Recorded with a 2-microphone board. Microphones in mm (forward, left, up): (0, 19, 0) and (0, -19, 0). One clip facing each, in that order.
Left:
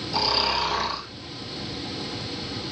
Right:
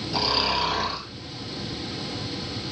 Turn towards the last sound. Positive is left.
turn(degrees=-10)  # may be behind; listen again after turning